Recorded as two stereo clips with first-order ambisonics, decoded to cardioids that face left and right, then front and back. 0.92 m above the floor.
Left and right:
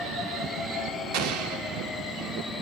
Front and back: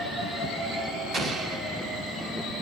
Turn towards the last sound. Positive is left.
turn(degrees=-110)